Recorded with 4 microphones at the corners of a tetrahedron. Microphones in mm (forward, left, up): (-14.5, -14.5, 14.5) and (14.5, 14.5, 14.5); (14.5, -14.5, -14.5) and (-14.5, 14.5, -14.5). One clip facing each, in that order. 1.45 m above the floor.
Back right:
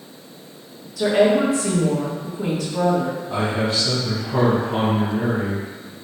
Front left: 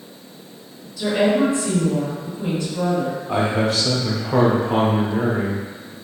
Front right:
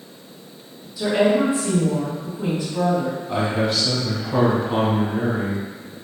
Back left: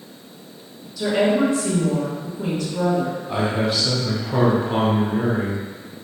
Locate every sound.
1.0 s a woman speaking: 125° right, 1.8 m
3.3 s a man speaking: 45° left, 1.4 m